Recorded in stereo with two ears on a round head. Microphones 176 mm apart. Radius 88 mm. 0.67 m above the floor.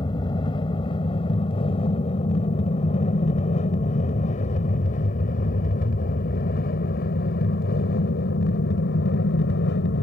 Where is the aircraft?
25° left (ahead or behind); by 10.0 s 60° left (ahead or behind).